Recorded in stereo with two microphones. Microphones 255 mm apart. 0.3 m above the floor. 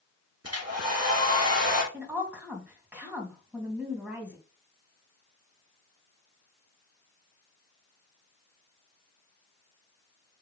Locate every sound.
0.4 s a hair dryer: 75° right (ahead or behind), 3 m
1.9 s a woman speaking: 5° right (ahead or behind), 2.5 m